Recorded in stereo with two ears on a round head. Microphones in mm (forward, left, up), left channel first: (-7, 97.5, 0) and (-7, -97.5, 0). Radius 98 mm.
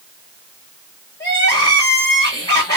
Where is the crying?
15° left (ahead or behind), 2 m.